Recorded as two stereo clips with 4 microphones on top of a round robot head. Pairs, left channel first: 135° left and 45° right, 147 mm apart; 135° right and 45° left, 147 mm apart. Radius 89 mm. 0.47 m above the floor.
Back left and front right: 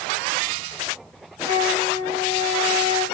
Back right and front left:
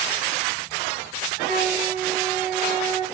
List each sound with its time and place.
1.4 s a flute: 30° left, 4.5 m